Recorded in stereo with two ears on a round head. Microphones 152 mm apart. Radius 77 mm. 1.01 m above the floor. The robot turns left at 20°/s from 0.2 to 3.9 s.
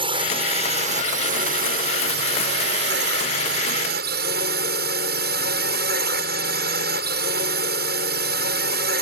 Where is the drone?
30° right; by 9.0 s 105° right.